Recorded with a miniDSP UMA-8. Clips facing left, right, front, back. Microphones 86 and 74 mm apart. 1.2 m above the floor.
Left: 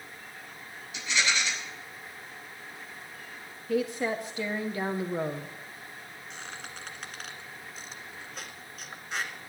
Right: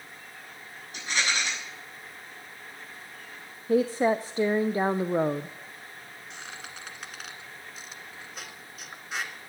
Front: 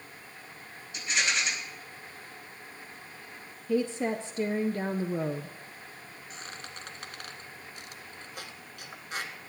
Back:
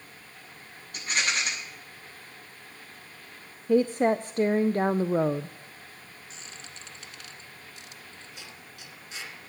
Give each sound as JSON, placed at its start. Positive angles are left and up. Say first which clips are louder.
{"t": 0.9, "sound": "a rattle", "louder": "even, back 1 dB", "azimuth_deg": -140, "distance_m": 8.0}
{"t": 3.7, "sound": "a woman speaking", "louder": "right 6 dB, back 6 dB", "azimuth_deg": -145, "distance_m": 0.5}
{"t": 6.3, "sound": "a squeak", "louder": "even, front 5 dB", "azimuth_deg": -5, "distance_m": 1.8}